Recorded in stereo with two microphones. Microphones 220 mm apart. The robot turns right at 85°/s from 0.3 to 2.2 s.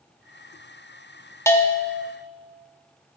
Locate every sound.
1.5 s a bell: 15° left (ahead or behind), 0.9 m; by 2.0 s 5° right (ahead or behind), 0.9 m